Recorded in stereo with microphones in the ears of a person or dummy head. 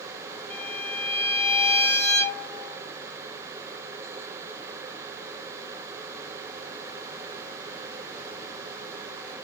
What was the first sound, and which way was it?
A violin, 15° left (ahead or behind).